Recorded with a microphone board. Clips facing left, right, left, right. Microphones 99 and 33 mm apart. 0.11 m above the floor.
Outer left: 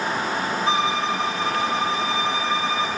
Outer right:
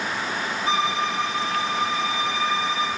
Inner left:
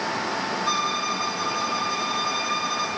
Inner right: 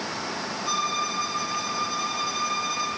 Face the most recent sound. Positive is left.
turn(degrees=25)  # may be behind; listen again after turning